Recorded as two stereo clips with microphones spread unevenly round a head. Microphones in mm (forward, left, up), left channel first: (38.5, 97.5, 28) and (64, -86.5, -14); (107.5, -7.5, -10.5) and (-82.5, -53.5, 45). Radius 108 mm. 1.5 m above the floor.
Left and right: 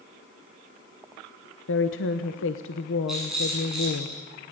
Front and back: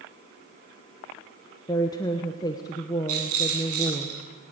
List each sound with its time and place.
1.7 s a woman speaking: 90° left, 1.1 m
3.1 s a rattle: 175° right, 8.5 m